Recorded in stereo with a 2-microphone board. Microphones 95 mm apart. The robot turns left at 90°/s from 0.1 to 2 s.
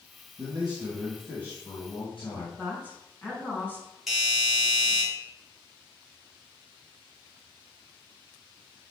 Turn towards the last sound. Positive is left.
turn(degrees=0)  # may be behind; listen again after turning